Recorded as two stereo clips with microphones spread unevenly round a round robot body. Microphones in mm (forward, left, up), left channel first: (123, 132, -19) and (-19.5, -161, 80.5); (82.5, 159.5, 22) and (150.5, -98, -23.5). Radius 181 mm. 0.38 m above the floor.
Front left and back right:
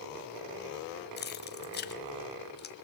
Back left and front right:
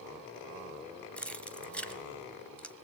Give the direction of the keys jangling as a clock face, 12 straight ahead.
12 o'clock.